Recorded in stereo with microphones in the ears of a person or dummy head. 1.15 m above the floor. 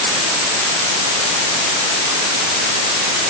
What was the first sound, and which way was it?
Only background noise.